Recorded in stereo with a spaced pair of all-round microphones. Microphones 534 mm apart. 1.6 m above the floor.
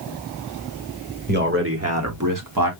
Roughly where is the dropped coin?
I don't hear a dropped coin.